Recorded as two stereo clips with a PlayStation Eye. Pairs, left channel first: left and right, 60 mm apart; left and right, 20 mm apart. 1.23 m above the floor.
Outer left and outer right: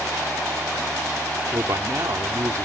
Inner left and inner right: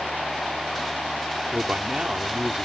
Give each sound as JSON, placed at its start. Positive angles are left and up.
{"t": 1.5, "sound": "a man speaking", "side_deg": -65}